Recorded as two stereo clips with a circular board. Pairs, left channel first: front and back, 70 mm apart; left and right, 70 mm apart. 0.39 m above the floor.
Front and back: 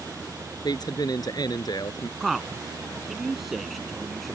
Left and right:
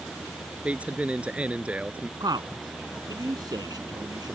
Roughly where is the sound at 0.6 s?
Ahead.